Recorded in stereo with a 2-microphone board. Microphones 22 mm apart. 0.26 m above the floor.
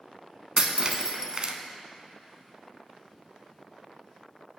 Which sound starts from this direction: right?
Breaking glass, at 0.6 s.